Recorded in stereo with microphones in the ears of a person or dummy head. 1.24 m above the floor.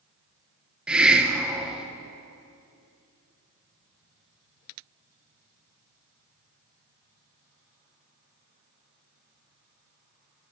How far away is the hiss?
About 0.9 m.